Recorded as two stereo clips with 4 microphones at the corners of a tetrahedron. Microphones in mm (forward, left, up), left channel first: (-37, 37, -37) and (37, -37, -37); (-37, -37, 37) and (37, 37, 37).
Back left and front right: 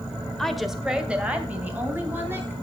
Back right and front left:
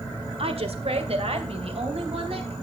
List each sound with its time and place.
0.4 s a woman speaking: 50° left, 1.4 m; by 2.5 s 25° left, 4 m